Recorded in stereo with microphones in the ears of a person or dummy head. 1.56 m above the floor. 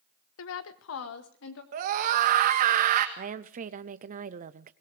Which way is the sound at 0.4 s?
75° left (ahead or behind).